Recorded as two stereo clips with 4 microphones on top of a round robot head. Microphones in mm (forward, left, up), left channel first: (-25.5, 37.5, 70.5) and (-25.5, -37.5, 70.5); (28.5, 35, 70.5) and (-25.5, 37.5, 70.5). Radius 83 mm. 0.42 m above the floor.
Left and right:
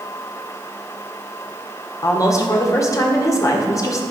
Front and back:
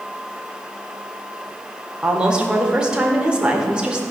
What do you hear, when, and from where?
2.0 s a woman speaking: 110° left, 1.9 m